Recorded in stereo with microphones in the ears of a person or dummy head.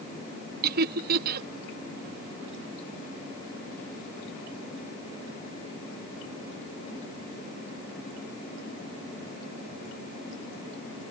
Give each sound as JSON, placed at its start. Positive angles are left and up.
{"t": 0.6, "sound": "laughter", "side_deg": -55}